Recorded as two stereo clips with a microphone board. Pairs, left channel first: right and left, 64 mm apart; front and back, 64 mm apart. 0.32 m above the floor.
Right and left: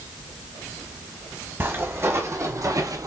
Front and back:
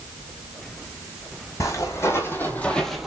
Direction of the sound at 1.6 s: 40° left.